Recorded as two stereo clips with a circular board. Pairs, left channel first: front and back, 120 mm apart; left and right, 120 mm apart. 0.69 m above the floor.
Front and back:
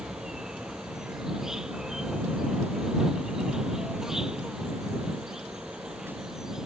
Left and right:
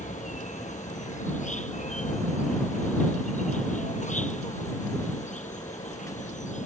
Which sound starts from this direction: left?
An insect, at 0.0 s.